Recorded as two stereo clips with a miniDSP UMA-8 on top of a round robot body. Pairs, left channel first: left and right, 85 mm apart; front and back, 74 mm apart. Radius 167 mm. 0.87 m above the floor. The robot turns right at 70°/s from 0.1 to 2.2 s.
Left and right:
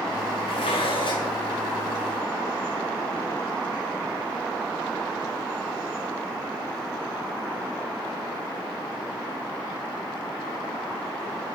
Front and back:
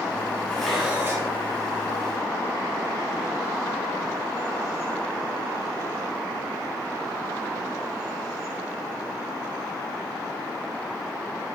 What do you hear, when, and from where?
0.5 s dishes clattering: 75° left, 1.3 m; by 1.3 s 135° left, 1.3 m